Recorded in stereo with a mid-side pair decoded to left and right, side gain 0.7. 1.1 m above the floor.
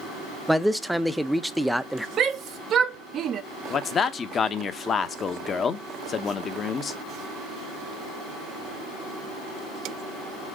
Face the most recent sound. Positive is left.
turn(degrees=35)